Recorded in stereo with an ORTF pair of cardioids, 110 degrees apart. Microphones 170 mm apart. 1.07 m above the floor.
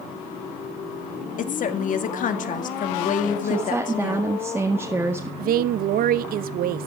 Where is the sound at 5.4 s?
65° right, 0.9 m.